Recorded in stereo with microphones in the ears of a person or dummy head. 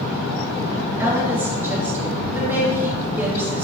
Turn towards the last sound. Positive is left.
turn(degrees=-10)  # may be behind; listen again after turning